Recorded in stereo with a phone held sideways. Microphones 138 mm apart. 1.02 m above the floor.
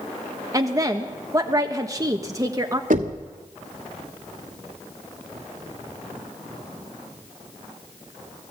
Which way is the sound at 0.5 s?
25° right (ahead or behind).